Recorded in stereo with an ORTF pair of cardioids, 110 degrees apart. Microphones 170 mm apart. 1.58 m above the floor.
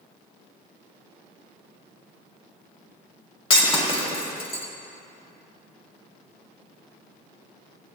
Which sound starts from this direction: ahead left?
Breaking glass, at 3.5 s.